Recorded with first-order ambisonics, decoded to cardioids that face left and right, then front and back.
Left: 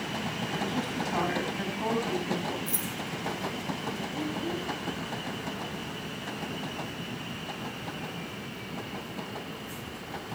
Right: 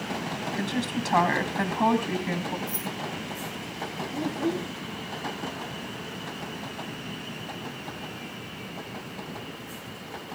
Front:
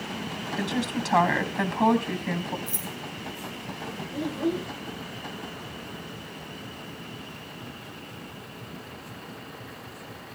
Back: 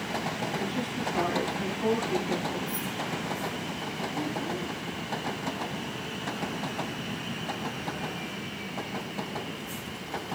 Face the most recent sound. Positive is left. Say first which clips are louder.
# right 4 dB, front 3 dB
turn(degrees=-20)